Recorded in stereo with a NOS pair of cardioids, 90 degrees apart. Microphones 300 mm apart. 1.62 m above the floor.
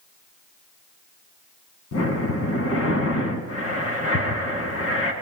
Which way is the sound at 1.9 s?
55° left.